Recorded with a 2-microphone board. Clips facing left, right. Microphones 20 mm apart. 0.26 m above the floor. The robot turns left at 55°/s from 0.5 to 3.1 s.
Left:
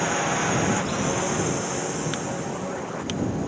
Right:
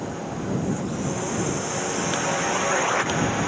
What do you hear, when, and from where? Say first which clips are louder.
0.0 s a drone: left 7 dB; 55° left; by 3.5 s 90° right